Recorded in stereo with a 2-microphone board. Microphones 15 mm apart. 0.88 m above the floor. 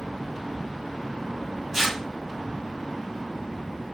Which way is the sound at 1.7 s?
25° right (ahead or behind).